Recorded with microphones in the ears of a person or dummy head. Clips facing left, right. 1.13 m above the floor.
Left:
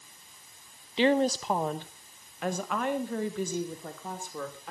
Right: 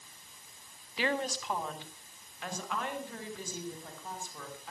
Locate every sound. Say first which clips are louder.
1.0 s a woman speaking: left 9 dB; 20° left (ahead or behind), 1.0 m; by 4.7 s 55° left (ahead or behind), 4 m